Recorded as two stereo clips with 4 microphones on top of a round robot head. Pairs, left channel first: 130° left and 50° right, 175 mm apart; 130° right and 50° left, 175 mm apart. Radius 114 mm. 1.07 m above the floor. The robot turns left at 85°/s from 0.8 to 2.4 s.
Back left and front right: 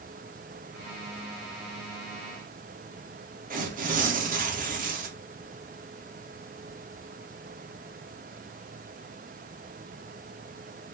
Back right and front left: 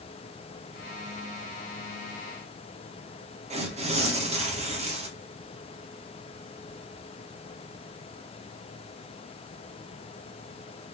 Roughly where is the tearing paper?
Ahead.